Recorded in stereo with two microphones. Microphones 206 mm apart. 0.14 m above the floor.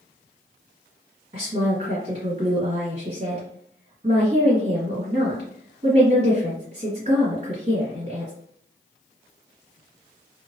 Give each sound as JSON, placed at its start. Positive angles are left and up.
{"t": 1.3, "sound": "a woman speaking", "side_deg": -30, "distance_m": 1.6}